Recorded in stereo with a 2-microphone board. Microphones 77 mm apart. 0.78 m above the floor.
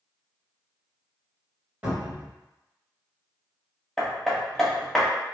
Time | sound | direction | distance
1.8 | a cupboard door | 20° right (ahead or behind) | 1.5 m
4.0 | hammering | 5° left (ahead or behind) | 0.6 m